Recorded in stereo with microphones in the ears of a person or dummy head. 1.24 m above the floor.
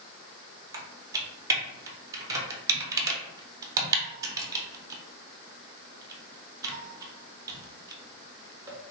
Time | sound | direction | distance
0.7 | typing on a keyboard | 15° right (ahead or behind) | 0.7 m